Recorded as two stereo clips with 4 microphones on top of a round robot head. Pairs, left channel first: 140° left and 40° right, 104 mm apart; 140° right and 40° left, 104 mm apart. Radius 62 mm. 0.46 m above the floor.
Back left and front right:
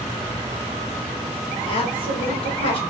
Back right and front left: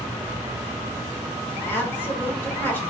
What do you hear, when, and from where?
1.7 s a woman speaking: 150° left, 1.2 m